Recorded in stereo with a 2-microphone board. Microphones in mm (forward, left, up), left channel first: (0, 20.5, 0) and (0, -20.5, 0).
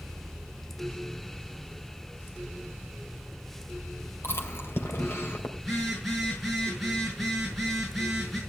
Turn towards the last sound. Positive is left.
turn(degrees=0)  # may be behind; listen again after turning